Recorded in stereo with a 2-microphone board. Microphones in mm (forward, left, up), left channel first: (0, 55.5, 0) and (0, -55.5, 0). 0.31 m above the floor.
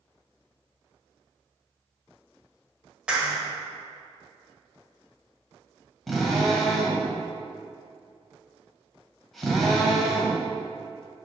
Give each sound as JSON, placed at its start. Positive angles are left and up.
{"t": 3.1, "sound": "a clap", "side_deg": -10, "distance_m": 1.2}
{"t": 6.1, "sound": "a drill", "side_deg": 0, "distance_m": 1.3}